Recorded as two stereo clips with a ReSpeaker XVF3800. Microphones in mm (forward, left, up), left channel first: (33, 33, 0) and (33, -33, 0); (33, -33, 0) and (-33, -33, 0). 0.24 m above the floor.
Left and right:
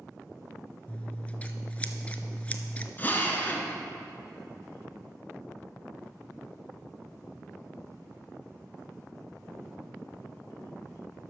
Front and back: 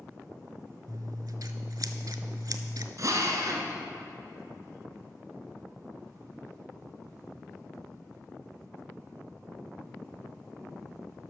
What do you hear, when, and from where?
0.9 s scissors: 160° left, 0.6 m
3.0 s a drill: 150° left, 1.2 m